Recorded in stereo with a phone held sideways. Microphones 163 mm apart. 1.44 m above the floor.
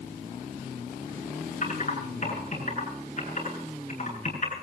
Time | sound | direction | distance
1.6 | typing on a keyboard | 50° left (ahead or behind) | 9 m